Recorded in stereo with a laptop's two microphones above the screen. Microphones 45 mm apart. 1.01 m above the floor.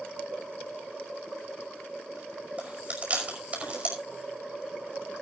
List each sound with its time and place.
2.6 s chewing: 30° right (ahead or behind), 5.5 m